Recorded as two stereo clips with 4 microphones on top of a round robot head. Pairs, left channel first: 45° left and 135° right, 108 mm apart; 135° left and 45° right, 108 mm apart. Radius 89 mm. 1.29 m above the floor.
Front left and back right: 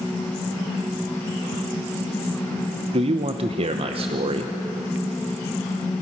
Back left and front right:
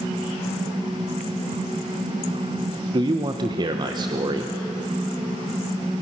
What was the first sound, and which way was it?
A man speaking, 100° right.